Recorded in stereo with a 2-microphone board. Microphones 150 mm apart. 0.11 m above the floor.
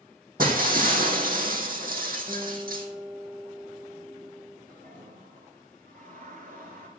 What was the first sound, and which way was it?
Breaking glass, 70° right (ahead or behind).